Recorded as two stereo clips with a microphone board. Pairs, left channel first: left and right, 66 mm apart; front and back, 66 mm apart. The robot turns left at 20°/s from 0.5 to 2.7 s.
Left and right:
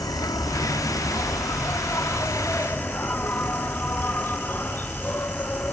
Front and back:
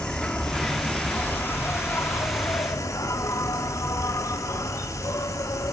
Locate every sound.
0.0 s an insect: 75° left, 1.3 m; by 5.7 s 30° left, 1.3 m